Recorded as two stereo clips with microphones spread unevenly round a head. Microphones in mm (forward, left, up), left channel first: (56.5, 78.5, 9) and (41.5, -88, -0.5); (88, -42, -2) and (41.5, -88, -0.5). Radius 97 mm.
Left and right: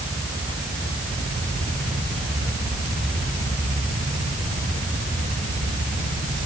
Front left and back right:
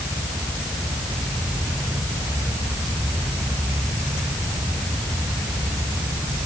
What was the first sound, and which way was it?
Only background noise.